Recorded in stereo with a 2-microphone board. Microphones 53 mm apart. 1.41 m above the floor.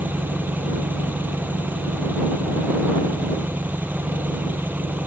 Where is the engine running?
35° right (ahead or behind).